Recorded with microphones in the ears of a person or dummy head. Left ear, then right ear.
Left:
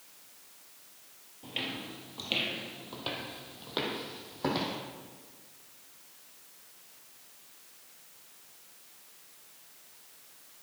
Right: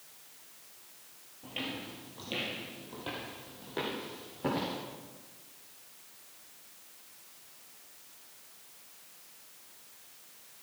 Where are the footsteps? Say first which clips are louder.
Left 2 dB; 20° left (ahead or behind), 2 m; by 4.8 s 40° left (ahead or behind), 4.5 m.